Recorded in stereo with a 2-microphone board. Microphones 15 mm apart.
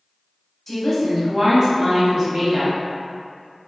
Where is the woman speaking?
20° left (ahead or behind), 1.0 m; by 2.8 s 35° right (ahead or behind), 2 m.